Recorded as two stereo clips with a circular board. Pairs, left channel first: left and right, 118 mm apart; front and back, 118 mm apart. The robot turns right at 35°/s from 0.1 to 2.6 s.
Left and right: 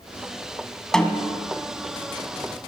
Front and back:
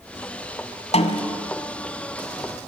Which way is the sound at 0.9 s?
5° left.